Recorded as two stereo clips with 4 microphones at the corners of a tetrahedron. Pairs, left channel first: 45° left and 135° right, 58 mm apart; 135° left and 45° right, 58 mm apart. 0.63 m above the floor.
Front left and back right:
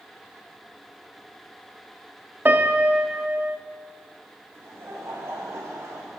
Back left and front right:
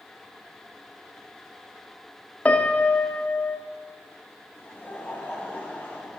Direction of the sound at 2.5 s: 170° right.